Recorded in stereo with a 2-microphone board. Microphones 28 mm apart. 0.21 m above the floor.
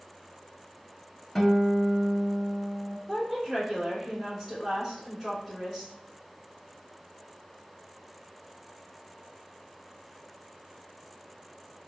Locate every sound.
1.4 s a guitar: 15° left (ahead or behind), 0.7 m
3.1 s a woman speaking: 20° left (ahead or behind), 1.3 m